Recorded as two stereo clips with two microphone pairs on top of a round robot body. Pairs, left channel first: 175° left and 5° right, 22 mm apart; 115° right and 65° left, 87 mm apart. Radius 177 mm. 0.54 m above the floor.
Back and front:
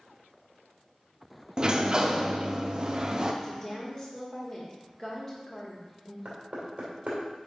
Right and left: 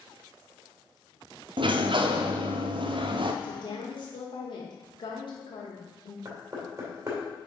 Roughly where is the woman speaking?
Behind right.